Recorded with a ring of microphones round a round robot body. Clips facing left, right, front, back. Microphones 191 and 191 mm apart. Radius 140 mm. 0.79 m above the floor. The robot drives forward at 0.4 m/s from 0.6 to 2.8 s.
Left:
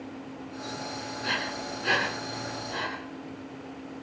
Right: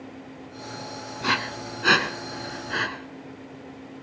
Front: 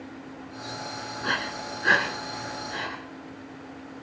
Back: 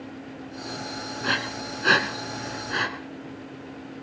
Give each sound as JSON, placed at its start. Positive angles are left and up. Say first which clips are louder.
{"t": 1.2, "sound": "breathing", "louder": "right 6 dB, back 2 dB", "azimuth_deg": -105, "distance_m": 1.2}